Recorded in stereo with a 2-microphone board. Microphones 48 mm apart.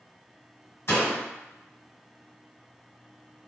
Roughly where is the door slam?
Left.